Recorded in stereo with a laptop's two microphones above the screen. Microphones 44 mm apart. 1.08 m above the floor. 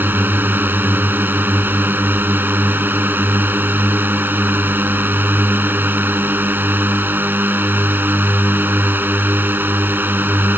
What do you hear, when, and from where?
0.0 s a drone: 50° right (ahead or behind)